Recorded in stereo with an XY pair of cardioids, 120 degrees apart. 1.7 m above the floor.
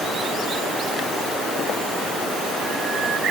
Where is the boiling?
No boiling in this recording.